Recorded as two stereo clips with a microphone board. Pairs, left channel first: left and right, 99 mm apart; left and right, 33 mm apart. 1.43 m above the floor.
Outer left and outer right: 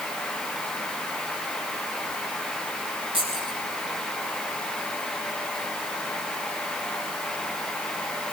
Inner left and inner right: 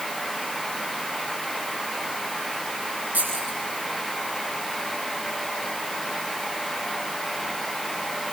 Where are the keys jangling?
65° right (ahead or behind), 8.5 m.